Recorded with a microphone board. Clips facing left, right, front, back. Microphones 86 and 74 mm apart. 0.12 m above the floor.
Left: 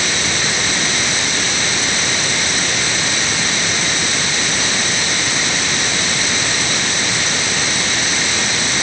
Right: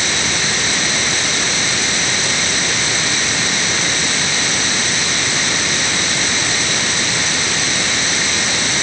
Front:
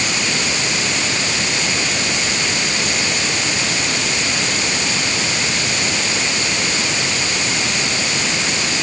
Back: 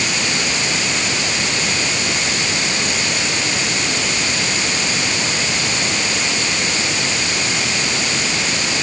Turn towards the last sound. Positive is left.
No sound to turn to.